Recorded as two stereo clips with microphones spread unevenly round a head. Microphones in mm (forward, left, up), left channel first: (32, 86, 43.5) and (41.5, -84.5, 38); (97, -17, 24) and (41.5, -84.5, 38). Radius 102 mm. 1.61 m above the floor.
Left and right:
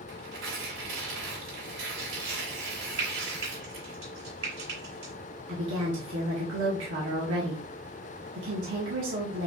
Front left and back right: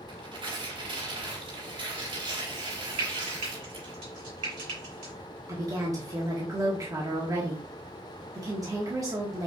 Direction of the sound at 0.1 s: 115° right.